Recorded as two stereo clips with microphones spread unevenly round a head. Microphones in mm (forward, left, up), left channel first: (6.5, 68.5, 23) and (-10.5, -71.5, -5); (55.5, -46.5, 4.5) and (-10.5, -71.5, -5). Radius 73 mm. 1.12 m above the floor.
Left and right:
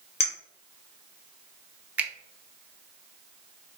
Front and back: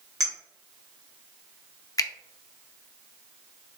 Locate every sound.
0.2 s a clink: 130° left, 1.5 m
2.0 s a finger snap: 15° right, 0.6 m